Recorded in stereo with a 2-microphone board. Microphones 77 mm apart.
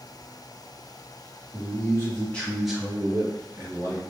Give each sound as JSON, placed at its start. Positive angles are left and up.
{"t": 1.5, "sound": "a man speaking", "side_deg": 45, "distance_m": 1.1}